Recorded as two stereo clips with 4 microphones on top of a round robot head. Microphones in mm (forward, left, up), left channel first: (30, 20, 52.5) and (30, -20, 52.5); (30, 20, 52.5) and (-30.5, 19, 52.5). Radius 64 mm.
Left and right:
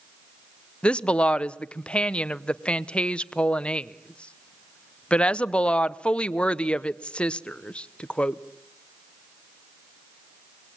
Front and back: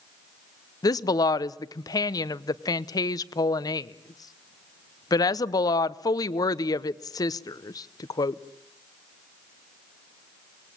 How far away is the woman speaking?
About 0.8 m.